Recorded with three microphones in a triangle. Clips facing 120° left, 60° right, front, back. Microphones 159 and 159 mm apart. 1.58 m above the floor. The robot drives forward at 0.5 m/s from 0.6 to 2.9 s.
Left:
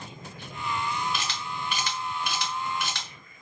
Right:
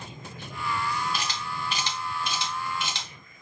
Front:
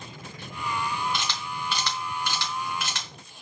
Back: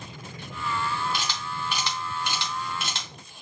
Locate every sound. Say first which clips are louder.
1.1 s a camera shutter: right 1 dB, even; 95° right, 2 m; by 3.1 s 125° right, 2.5 m